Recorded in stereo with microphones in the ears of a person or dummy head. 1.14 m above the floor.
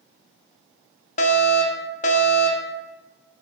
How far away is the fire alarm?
About 1.5 m.